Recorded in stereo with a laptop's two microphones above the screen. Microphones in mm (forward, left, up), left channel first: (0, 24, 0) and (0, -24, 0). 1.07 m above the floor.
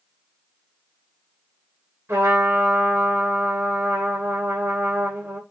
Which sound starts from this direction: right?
A trumpet, at 2.1 s.